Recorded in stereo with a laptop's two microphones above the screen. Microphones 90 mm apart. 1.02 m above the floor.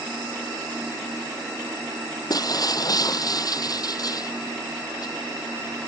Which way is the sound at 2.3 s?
50° left (ahead or behind).